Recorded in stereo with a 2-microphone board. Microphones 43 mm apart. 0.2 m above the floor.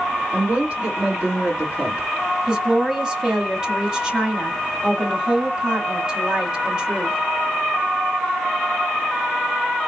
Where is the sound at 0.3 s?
30° right (ahead or behind), 2.5 m.